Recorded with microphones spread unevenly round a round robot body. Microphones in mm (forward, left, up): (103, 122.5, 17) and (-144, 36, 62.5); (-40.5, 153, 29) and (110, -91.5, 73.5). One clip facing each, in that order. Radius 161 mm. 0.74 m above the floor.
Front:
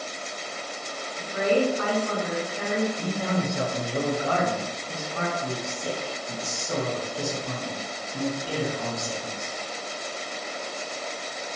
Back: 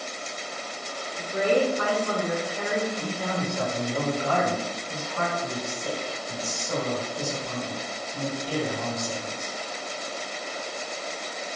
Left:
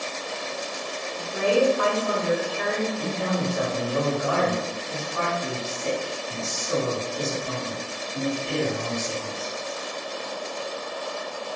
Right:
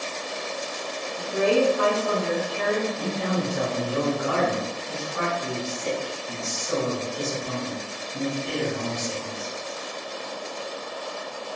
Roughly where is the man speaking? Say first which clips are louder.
Front 2 dB, even; ahead.